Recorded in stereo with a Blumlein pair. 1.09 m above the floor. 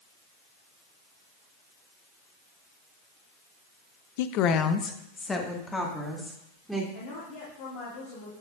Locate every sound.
4.2 s a woman speaking: 50° left, 0.6 m; by 6.8 s 5° left, 3 m
6.9 s a woman speaking: 50° left, 2 m